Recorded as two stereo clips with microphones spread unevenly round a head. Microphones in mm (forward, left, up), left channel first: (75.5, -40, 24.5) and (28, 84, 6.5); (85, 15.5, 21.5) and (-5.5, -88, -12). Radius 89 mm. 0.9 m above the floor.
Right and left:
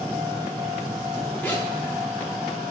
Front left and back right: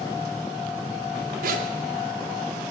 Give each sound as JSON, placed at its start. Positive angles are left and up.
{"t": 1.4, "sound": "a zipper", "azimuth_deg": -150, "distance_m": 1.7}